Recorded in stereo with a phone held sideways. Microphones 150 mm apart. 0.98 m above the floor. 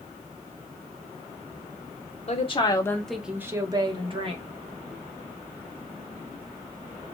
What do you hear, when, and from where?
2.3 s a woman speaking: 45° left (ahead or behind), 0.6 m; by 4.4 s 40° right (ahead or behind), 1.1 m